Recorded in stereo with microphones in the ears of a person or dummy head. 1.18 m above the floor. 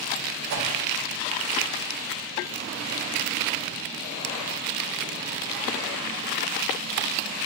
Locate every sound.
0.5 s a whoosh: 65° right (ahead or behind), 0.5 m